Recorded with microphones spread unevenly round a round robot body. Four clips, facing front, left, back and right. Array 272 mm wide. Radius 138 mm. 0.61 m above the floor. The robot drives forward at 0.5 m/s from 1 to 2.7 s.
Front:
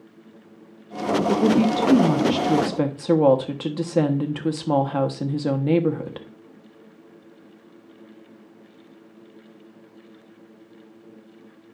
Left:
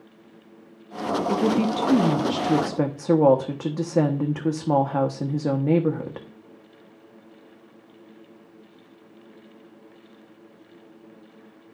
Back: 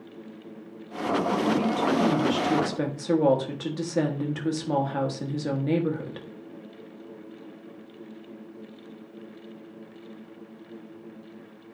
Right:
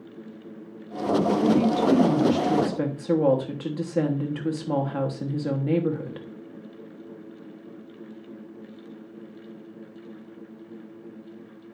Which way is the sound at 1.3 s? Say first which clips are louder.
Even, front 9 dB; 30° left.